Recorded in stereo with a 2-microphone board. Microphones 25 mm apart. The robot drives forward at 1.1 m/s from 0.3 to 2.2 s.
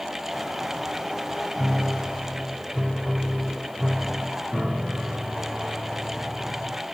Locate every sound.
1.6 s a piano: 15° right (ahead or behind); by 6.8 s 20° right (ahead or behind)